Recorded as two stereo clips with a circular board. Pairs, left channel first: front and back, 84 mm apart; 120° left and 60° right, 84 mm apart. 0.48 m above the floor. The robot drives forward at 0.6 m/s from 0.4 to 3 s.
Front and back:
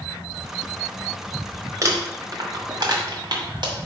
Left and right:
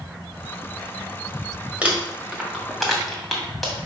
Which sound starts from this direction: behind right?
Crumpling, at 1.8 s.